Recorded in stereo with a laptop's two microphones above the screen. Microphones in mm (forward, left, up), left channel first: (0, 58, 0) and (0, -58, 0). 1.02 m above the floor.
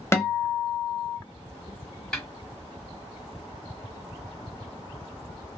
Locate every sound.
0.1 s a guitar: 25° left (ahead or behind), 0.8 m
2.1 s a snare drum: 10° left (ahead or behind), 1.6 m